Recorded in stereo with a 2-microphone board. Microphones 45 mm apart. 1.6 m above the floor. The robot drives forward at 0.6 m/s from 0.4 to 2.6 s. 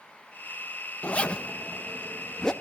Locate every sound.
1.0 s a zipper: 30° left (ahead or behind), 0.9 m; by 2.5 s 15° left (ahead or behind), 1.5 m